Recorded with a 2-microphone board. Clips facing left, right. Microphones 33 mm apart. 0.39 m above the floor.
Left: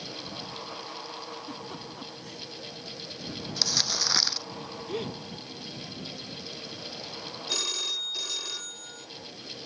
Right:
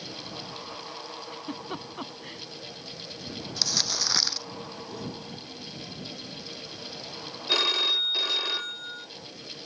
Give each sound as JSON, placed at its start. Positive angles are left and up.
{"t": 1.3, "sound": "a giggle", "side_deg": -35}
{"t": 3.6, "sound": "crumpling", "side_deg": 5}
{"t": 4.9, "sound": "a gasp", "side_deg": 55}
{"t": 7.5, "sound": "a phone ringing", "side_deg": -40}